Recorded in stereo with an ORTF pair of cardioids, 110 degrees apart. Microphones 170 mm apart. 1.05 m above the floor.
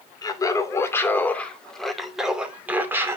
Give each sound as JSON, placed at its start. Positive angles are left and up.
{"t": 0.2, "sound": "laughter", "azimuth_deg": 20, "distance_m": 2.5}